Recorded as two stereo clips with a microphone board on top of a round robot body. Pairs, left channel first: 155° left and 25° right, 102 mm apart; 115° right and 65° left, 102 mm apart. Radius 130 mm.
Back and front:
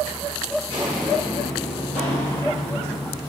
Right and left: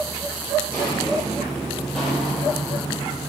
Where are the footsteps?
55° right, 1.2 m; by 3.2 s 160° left, 3 m.